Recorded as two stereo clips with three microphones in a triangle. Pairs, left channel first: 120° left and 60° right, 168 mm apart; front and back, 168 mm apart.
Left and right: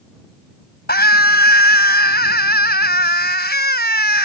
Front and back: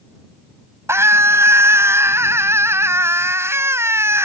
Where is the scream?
105° left.